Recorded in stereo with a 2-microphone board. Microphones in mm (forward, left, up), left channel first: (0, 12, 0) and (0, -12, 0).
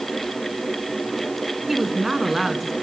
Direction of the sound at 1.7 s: 15° right (ahead or behind).